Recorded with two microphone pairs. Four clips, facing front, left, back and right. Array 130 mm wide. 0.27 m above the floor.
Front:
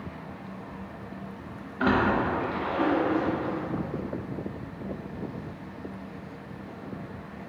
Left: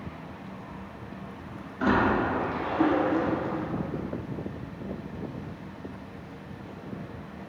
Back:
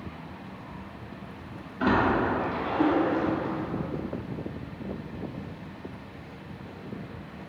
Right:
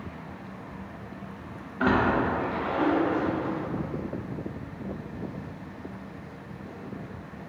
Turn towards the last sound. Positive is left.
turn(degrees=-60)